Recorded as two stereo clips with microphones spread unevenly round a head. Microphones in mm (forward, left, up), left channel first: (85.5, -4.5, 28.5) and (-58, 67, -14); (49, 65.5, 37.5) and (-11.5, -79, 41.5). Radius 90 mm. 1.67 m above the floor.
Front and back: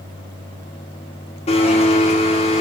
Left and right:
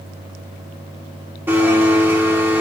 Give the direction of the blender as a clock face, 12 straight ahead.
1 o'clock.